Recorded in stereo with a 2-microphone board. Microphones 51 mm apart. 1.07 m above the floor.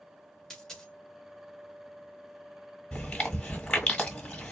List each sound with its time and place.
0.5 s a dropped coin: 10° left (ahead or behind), 0.9 m
2.9 s chewing: 20° left (ahead or behind), 1.5 m